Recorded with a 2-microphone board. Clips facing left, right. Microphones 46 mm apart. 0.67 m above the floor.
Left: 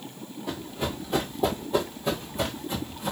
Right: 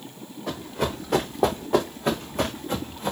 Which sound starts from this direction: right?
Running footsteps, at 0.5 s.